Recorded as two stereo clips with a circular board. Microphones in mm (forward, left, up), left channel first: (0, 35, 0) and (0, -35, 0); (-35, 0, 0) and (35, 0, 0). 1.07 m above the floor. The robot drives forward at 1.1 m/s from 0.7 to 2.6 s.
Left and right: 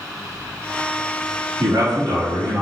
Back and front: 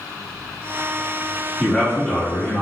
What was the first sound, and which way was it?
A man speaking, 95° right.